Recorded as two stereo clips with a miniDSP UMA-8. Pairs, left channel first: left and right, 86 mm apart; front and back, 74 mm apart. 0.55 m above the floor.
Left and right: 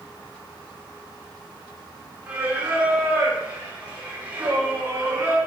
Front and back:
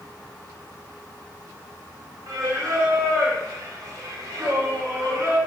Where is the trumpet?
No trumpet in this recording.